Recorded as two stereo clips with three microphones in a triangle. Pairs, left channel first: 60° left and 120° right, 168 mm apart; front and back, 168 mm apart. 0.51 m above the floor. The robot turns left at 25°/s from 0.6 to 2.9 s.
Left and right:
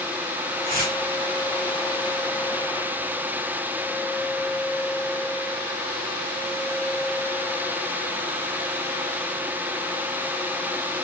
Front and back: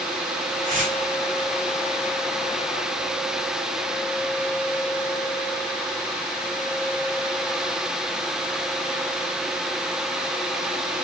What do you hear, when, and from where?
0.6 s tearing paper: 140° right, 2.5 m; by 0.9 s 150° right, 2.5 m